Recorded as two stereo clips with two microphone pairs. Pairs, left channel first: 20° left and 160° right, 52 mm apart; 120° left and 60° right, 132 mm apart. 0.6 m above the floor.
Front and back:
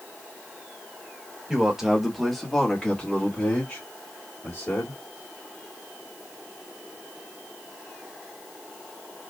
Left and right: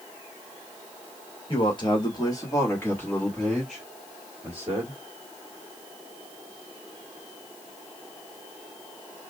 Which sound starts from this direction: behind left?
A man speaking, at 1.5 s.